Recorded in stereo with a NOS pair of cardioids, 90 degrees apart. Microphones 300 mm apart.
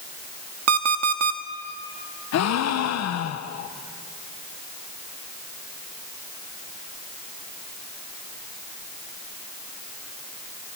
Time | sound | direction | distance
0.7 | an alarm clock | 60° right | 1.8 m
2.3 | a gasp | 65° left | 1.4 m